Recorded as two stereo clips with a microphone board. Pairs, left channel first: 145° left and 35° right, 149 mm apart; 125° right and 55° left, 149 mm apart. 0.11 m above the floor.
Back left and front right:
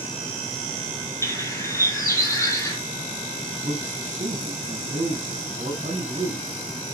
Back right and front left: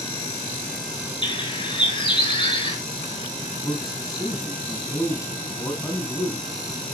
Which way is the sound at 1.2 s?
155° right.